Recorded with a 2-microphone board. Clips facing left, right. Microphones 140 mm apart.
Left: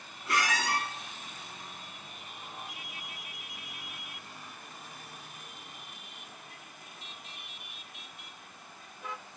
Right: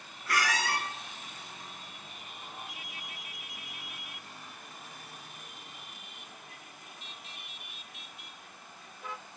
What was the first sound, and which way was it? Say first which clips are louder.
A squeak: even; 25° left (ahead or behind).